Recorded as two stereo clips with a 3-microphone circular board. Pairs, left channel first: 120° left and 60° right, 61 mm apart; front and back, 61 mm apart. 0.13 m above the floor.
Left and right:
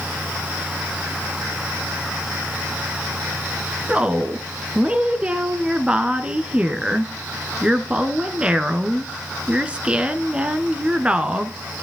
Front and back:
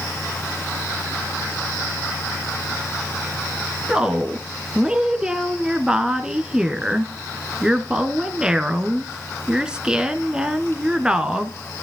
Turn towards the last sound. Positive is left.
turn(degrees=-115)